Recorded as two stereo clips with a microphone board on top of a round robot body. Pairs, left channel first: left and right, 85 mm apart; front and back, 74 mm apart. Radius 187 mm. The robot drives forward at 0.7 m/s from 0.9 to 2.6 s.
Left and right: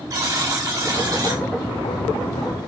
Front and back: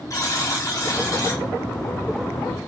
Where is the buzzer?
45° right, 4.5 m; by 1.4 s 50° right, 4.5 m.